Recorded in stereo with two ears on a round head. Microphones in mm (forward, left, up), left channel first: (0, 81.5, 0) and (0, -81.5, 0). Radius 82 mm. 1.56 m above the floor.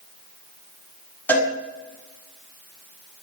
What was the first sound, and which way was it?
A cowbell, 10° left (ahead or behind).